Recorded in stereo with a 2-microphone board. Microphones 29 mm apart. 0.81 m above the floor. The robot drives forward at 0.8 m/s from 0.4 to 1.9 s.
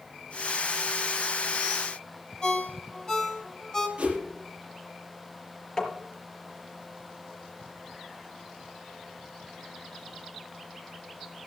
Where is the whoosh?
45° right (ahead or behind), 5.5 m.